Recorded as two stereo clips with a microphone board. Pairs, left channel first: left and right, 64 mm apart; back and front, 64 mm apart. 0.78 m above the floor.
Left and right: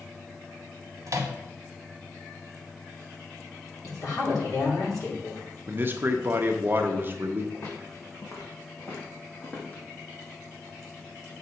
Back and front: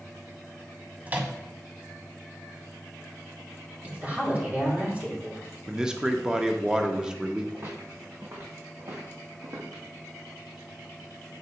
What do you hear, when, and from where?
1.1 s a microwave: 60° right, 1.0 m
3.8 s a woman speaking: 60° left, 3 m
5.7 s a man speaking: 70° right, 0.7 m
7.5 s footsteps: 45° left, 3.5 m; by 9.8 s 30° left, 2 m